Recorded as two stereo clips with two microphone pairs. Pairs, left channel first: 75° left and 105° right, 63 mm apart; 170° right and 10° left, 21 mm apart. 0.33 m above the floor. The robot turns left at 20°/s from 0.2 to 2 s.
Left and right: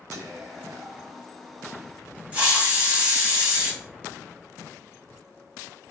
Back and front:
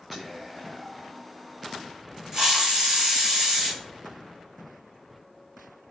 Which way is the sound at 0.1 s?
70° right.